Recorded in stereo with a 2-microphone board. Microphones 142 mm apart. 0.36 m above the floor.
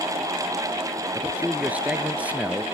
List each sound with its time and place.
1.1 s a man speaking: 10° right (ahead or behind)